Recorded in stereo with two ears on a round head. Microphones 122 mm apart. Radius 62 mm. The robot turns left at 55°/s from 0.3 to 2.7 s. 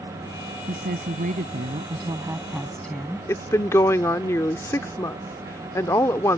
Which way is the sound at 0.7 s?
70° right.